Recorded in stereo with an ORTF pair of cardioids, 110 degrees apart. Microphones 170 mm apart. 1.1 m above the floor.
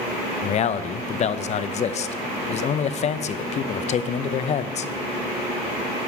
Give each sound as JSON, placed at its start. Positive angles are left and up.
{"t": 0.4, "sound": "a man speaking", "azimuth_deg": 40, "distance_m": 0.6}